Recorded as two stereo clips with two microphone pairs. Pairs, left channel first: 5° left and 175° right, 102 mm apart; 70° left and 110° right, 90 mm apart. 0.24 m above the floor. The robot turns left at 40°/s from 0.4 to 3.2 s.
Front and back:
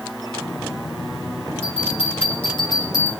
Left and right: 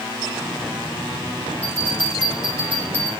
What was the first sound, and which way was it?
A bell, 10° left.